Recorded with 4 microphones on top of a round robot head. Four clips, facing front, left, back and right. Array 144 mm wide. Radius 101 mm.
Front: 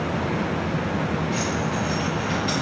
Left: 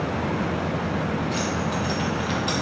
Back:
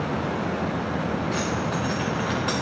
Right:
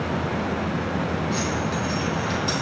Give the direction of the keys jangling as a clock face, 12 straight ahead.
6 o'clock.